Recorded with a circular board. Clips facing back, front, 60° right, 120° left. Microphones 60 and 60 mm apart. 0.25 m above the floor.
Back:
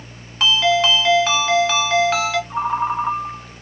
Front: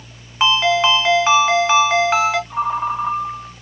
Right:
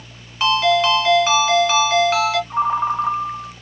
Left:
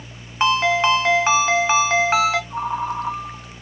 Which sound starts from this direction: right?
A ringtone, at 2.5 s.